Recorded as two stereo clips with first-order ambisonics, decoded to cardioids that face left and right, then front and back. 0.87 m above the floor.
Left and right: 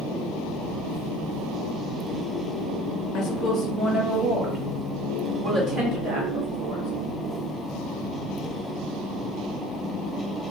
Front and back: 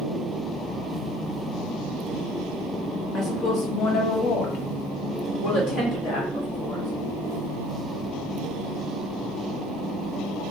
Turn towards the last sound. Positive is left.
turn(degrees=-40)